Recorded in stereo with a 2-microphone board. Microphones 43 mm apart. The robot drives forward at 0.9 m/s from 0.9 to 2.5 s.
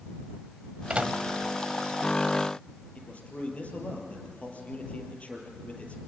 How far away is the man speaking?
About 5 m.